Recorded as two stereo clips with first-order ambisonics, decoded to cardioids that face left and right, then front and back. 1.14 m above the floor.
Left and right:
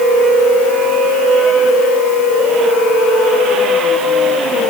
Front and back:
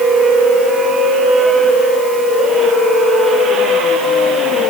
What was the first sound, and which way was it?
Only background noise.